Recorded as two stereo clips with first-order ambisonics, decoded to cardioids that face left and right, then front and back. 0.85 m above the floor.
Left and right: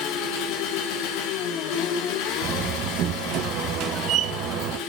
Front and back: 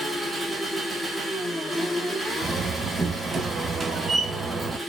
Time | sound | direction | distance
0.0 | an engine running | 95° left | 1.4 m
2.4 | a door slam | 110° right | 0.6 m